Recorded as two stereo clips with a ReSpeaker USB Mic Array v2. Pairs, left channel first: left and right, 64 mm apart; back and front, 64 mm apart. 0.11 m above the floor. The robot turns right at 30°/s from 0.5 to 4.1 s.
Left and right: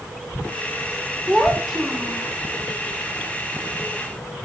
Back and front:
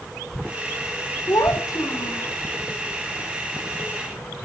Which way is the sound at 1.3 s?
170° left.